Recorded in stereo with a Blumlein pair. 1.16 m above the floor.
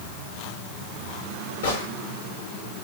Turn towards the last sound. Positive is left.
turn(degrees=65)